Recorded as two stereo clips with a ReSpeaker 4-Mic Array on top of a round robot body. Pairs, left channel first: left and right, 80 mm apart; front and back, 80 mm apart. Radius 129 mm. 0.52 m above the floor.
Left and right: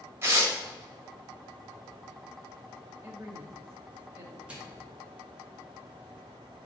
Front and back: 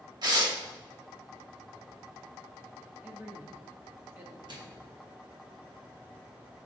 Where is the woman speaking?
130° right, 1.4 m.